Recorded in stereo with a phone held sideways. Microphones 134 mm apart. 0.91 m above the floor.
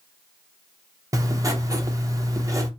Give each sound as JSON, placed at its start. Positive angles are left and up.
{"t": 1.1, "sound": "writing", "side_deg": -25, "distance_m": 0.5}